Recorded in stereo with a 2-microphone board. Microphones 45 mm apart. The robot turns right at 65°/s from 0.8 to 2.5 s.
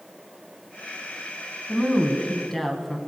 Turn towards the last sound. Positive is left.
turn(degrees=165)